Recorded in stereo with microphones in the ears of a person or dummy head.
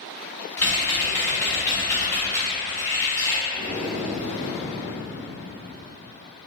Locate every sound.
0.6 s typing on a keyboard: 10° left (ahead or behind), 0.8 m
3.5 s breathing: 15° right (ahead or behind), 1.3 m